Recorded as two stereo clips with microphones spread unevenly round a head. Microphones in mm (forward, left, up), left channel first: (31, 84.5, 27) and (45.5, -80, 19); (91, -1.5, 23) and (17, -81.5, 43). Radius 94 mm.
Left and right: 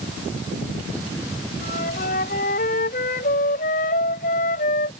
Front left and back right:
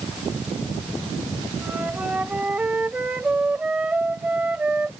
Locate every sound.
1.6 s a flute: 145° left